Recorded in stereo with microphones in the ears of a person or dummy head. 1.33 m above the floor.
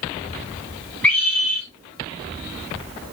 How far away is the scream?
About 5 m.